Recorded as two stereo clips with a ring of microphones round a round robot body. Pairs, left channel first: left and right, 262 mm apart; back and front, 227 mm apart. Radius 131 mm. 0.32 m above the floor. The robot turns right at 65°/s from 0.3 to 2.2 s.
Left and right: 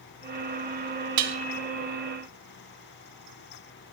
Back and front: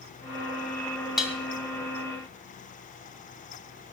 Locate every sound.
1.2 s dishes clattering: 90° right, 1.7 m; by 1.4 s 80° right, 1.7 m